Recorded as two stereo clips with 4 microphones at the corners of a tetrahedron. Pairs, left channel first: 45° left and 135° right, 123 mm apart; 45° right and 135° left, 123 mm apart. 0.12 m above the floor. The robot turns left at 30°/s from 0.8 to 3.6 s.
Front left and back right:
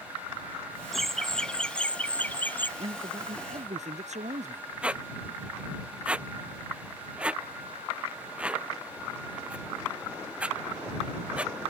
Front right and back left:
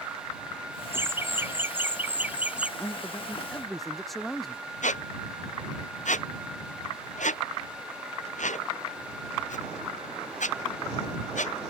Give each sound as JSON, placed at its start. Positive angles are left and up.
{"t": 0.9, "sound": "laughter", "azimuth_deg": 130}
{"t": 2.8, "sound": "a man speaking", "azimuth_deg": -110}
{"t": 4.8, "sound": "a squeak", "azimuth_deg": -55}